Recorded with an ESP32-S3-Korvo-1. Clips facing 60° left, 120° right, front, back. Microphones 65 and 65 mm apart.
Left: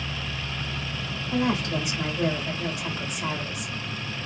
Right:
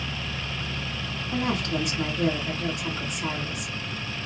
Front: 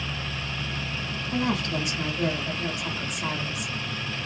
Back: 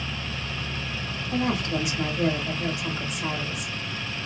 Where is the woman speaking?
135° left, 1.7 m.